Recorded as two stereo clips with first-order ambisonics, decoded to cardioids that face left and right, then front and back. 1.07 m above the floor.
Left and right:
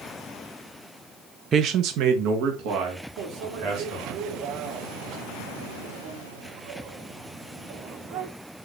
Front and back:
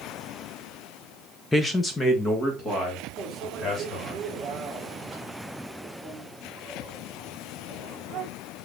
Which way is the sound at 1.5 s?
80° right.